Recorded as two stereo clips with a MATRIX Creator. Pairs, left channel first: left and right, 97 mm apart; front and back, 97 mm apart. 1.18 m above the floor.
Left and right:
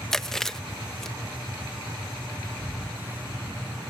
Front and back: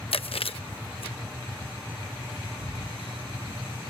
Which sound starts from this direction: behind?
Breathing, at 2.6 s.